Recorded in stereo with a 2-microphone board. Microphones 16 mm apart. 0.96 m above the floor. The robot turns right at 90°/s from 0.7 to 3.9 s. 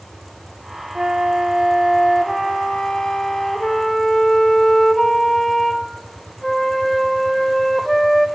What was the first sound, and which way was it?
A flute, 100° right.